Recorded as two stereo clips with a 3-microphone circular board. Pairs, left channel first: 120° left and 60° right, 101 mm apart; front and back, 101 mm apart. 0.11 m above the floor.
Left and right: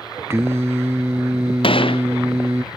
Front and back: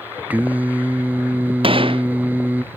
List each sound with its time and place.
0.3 s singing: 110° right
1.6 s a gunshot: 150° left